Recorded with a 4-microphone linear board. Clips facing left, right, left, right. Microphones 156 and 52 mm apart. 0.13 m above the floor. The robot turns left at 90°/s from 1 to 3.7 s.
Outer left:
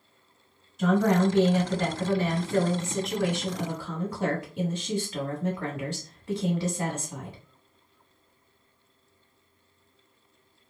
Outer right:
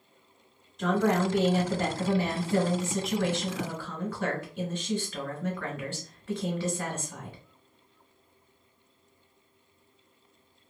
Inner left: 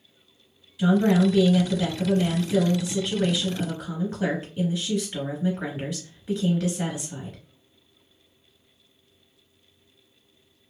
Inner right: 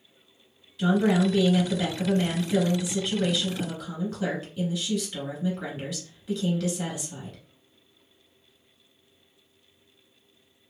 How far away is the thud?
I don't hear a thud.